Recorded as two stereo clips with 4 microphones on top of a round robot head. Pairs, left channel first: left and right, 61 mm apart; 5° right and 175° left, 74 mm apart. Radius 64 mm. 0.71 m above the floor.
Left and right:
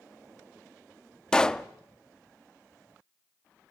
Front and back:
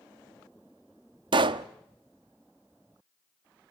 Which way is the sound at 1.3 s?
170° left.